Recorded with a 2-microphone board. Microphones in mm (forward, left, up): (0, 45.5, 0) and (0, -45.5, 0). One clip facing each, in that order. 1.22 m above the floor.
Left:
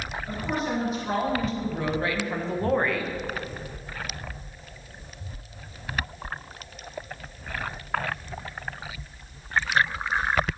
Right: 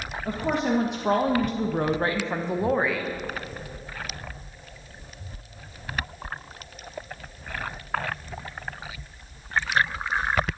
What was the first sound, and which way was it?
A woman speaking, 75° right (ahead or behind).